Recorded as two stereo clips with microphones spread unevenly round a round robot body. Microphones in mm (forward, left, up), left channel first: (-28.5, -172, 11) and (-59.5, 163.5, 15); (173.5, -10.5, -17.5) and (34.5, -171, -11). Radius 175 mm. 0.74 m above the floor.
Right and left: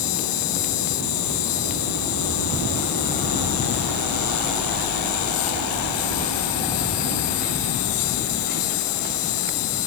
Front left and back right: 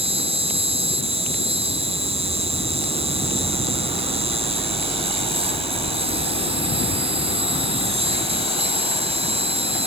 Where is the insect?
70° right.